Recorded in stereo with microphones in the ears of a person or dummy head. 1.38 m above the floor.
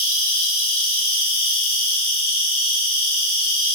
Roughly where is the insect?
Centre.